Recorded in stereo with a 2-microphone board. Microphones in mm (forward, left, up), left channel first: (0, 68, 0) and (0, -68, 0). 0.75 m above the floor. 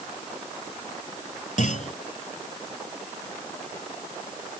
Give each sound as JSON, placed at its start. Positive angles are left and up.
{"t": 1.6, "sound": "a clunk", "side_deg": 65}